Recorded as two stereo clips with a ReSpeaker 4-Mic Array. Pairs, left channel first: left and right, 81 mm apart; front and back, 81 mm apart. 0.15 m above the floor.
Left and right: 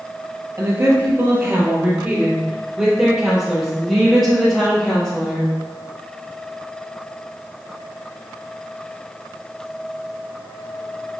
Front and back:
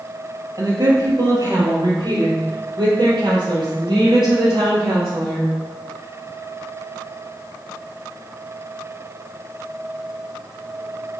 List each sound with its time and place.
0.6 s a woman speaking: 145° right, 3 m; by 5.5 s 170° left, 5 m